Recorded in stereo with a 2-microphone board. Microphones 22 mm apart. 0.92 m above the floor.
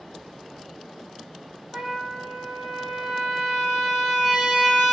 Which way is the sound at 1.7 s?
40° right (ahead or behind).